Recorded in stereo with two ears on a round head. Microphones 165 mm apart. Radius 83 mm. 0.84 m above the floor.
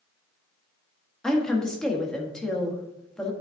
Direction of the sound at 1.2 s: 5° left (ahead or behind).